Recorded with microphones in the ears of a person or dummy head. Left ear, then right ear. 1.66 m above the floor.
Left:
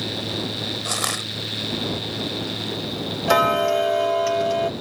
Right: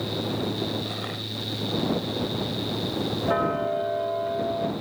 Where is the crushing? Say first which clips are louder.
Left 7 dB; 75° left (ahead or behind).